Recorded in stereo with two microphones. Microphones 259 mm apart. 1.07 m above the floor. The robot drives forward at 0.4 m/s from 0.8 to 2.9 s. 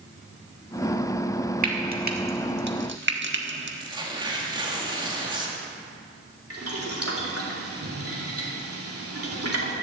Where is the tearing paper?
20° right (ahead or behind), 2 m.